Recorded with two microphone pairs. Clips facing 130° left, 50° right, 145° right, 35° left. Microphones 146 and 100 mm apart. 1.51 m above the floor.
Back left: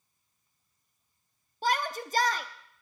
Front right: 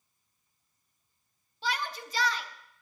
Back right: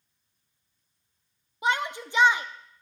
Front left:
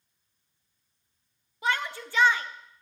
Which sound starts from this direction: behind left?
A shout, at 1.6 s.